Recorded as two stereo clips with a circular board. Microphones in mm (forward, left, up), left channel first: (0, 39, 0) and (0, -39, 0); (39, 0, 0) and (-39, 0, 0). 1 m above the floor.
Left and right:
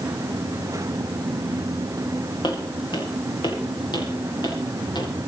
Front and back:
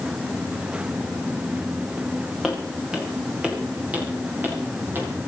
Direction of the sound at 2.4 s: 95° left.